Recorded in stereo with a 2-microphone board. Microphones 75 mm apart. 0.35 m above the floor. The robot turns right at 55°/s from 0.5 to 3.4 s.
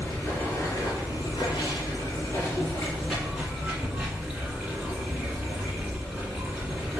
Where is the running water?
35° left, 1.5 m; by 7.0 s 165° right, 1.5 m.